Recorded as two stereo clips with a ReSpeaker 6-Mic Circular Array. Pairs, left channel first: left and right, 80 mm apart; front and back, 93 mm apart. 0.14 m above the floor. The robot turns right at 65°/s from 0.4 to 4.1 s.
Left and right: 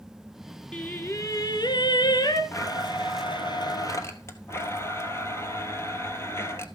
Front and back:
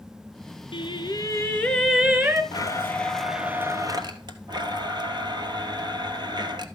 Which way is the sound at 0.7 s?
5° left.